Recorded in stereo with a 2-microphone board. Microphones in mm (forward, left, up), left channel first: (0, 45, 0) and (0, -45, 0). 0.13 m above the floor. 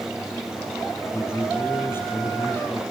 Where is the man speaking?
25° left (ahead or behind), 3.5 m.